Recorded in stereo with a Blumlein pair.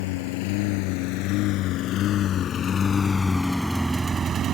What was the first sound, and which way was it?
A lawn mower, 50° left.